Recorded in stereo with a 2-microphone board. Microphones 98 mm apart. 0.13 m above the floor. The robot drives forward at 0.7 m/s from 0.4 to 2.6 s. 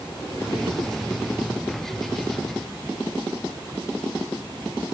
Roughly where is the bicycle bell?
I don't hear a bicycle bell.